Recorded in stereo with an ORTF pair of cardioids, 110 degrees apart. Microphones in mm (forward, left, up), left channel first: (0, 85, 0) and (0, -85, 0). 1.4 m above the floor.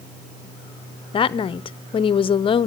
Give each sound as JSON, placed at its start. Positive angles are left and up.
{"t": 1.1, "sound": "a woman speaking", "azimuth_deg": 35, "distance_m": 0.6}